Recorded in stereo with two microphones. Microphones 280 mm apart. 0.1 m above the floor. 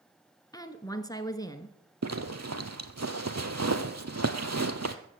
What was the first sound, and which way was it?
A woman speaking, 15° left (ahead or behind).